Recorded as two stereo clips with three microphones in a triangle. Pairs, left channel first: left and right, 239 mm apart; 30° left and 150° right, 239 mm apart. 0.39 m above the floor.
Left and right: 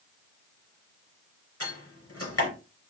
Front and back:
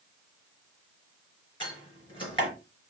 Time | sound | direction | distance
1.6 | a door slam | 100° left | 3.5 m